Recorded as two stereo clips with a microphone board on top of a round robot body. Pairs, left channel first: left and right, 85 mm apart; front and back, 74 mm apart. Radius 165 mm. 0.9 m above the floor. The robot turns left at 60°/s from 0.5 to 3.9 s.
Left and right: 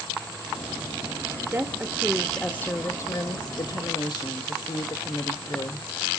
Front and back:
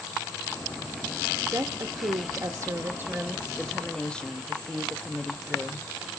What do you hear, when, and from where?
1.5 s a woman speaking: 145° right, 1.0 m; by 5.8 s 70° left, 1.0 m